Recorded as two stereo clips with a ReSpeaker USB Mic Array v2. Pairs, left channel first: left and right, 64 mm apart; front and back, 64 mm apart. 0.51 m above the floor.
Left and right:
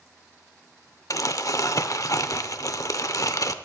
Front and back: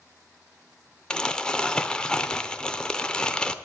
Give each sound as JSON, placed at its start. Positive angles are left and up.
{"t": 1.1, "sound": "crumpling", "azimuth_deg": 75, "distance_m": 0.7}